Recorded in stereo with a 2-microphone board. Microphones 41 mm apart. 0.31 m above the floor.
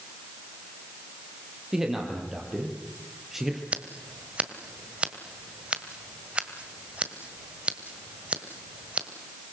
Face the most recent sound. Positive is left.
turn(degrees=-30)  # may be behind; listen again after turning